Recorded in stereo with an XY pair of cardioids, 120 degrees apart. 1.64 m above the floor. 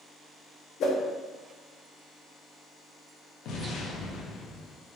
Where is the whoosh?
60° left, 0.8 m.